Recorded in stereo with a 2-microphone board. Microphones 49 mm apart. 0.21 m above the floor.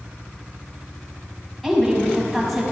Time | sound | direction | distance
1.6 | a woman speaking | 5° right (ahead or behind) | 1.6 m